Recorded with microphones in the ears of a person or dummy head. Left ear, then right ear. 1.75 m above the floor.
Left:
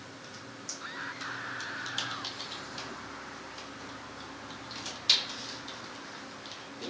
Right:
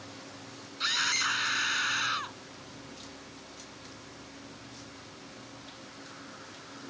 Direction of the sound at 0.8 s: 80° right.